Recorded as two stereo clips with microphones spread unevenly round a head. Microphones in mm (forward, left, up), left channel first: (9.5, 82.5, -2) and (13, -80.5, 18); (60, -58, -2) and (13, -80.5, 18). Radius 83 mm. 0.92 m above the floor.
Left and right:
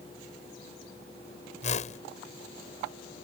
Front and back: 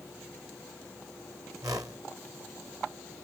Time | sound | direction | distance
1.6 | a whoosh | 145° left | ?